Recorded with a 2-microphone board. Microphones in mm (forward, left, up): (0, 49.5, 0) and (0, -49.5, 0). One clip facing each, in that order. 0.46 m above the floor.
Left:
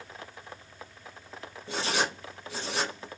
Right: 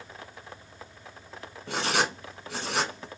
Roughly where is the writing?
Right.